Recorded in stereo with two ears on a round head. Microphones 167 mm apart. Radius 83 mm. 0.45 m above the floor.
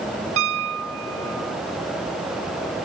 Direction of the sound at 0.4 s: 75° right (ahead or behind).